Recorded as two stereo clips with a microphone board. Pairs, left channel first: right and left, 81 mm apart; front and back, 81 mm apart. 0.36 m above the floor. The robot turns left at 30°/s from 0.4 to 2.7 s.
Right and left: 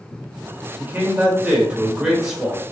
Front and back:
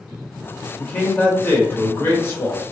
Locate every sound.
0.8 s a man speaking: 60° left, 0.9 m; by 2.6 s 5° left, 0.9 m